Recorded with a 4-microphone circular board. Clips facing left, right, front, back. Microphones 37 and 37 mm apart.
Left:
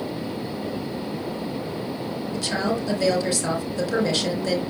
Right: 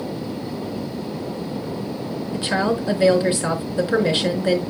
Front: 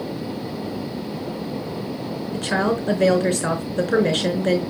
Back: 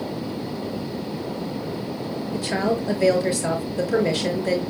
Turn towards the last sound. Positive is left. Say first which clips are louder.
# right 4 dB, front 2 dB
turn(degrees=-30)